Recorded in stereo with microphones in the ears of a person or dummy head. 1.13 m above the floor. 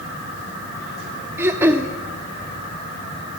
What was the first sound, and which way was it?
Throat clearing, 10° right (ahead or behind).